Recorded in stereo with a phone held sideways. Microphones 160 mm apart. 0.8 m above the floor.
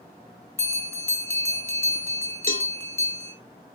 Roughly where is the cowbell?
Left.